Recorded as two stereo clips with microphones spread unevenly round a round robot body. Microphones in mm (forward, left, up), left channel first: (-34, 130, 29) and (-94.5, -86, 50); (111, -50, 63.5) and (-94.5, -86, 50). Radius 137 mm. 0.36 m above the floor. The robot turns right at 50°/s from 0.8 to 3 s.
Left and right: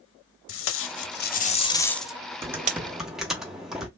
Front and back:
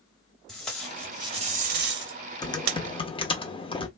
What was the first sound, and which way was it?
Tape being pulled, 100° left.